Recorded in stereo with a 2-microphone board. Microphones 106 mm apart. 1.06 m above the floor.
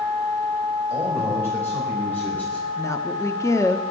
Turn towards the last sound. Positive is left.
turn(degrees=30)  # may be behind; listen again after turning